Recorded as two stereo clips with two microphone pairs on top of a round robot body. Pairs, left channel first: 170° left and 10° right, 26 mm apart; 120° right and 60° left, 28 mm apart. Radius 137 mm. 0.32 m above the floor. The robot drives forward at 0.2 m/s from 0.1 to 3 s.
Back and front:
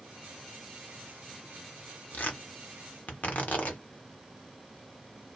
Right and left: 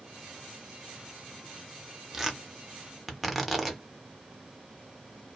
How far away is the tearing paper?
About 0.8 m.